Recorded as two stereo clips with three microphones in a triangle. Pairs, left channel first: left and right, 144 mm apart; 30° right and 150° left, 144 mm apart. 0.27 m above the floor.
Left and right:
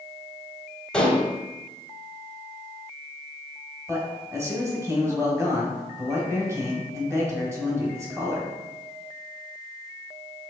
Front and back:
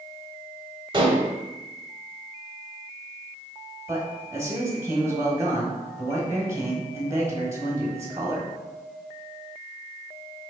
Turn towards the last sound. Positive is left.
turn(degrees=-150)